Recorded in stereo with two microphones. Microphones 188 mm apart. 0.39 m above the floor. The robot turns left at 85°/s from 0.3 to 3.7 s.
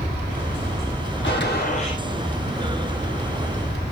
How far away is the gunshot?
About 2.5 m.